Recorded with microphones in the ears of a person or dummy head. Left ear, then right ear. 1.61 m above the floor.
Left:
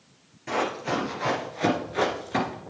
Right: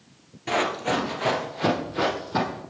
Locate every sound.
0.5 s running footsteps: 10° right (ahead or behind), 2 m; by 2.6 s 35° left (ahead or behind), 1.9 m